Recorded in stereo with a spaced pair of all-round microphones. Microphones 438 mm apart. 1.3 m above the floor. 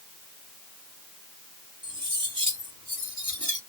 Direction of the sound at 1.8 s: 40° right (ahead or behind).